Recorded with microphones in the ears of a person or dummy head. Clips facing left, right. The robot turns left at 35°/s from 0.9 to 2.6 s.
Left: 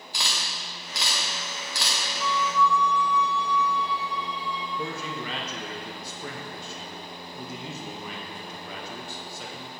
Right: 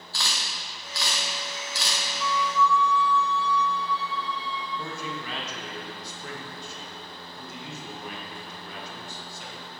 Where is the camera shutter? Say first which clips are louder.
Left 1 dB; 15° left (ahead or behind), 0.9 m; by 2.0 s 50° left (ahead or behind), 0.9 m.